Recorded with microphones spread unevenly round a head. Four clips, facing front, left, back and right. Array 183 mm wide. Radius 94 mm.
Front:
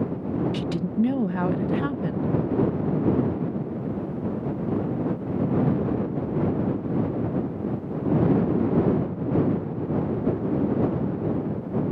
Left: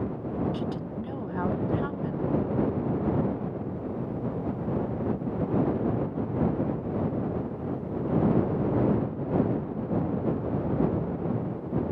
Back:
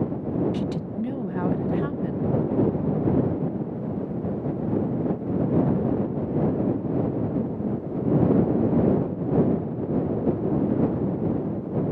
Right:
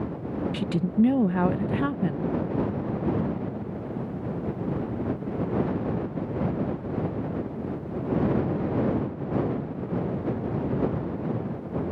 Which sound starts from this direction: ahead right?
A woman speaking, at 0.5 s.